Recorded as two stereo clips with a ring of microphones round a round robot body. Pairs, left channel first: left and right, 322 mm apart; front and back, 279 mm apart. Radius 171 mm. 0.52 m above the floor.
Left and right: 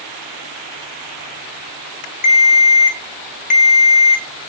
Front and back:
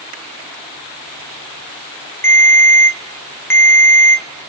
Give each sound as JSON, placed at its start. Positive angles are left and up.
{"t": 2.2, "sound": "a ringtone", "azimuth_deg": 70, "distance_m": 0.5}